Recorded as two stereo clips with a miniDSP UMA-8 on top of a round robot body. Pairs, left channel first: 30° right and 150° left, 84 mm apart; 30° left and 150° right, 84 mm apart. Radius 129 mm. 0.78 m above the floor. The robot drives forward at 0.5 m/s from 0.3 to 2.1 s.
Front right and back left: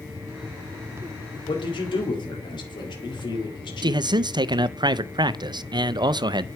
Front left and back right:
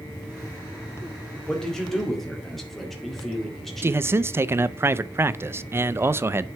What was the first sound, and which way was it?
A man speaking, 50° right.